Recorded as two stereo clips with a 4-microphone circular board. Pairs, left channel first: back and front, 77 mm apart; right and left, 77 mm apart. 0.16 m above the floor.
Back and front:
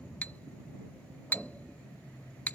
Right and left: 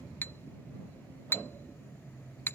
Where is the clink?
125° right.